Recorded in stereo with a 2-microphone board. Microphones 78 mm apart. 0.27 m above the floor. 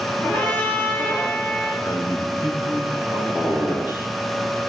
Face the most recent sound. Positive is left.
turn(degrees=80)